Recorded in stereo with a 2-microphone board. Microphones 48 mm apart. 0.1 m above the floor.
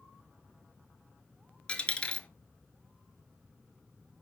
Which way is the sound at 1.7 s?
25° left (ahead or behind).